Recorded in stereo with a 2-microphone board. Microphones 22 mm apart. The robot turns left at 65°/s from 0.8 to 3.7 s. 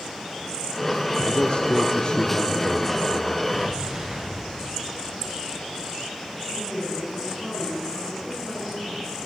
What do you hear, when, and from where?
1.3 s a man speaking: 115° left, 1.6 m; by 3.4 s 25° right, 1.6 m
3.5 s an explosion: 35° right (ahead or behind), 5 m; by 5.8 s 20° right (ahead or behind), 5 m
6.5 s a woman speaking: 10° right (ahead or behind), 10 m